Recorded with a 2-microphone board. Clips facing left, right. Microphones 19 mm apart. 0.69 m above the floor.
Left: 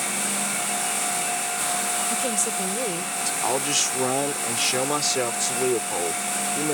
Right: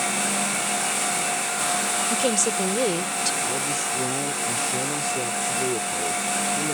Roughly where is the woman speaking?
Right.